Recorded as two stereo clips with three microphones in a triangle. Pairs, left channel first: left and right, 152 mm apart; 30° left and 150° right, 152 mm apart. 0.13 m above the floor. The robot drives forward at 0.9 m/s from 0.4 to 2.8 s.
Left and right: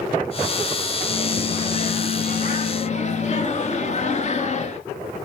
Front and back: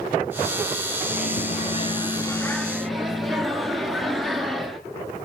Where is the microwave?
40° left, 1.6 m; by 4.8 s 120° left, 1.3 m.